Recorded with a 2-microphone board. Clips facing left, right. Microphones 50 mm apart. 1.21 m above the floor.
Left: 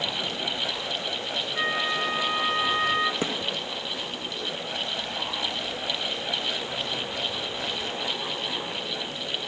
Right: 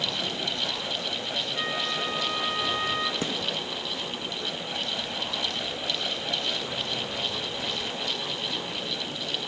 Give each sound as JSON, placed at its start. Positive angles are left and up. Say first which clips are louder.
{"t": 1.5, "sound": "a flute", "louder": "left 5 dB", "side_deg": 25, "distance_m": 1.2}
{"t": 3.2, "sound": "a gunshot", "louder": "left 2 dB", "side_deg": 25, "distance_m": 0.9}